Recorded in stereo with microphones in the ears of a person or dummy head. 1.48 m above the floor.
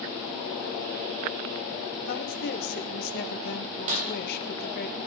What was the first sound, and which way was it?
A woman speaking, 55° left (ahead or behind).